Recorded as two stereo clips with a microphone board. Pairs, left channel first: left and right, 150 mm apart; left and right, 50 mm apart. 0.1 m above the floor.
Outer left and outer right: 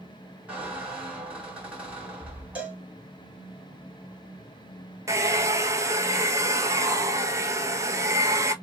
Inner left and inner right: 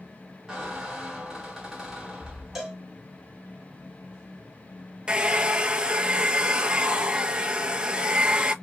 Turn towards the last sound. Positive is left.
turn(degrees=-20)  # may be behind; listen again after turning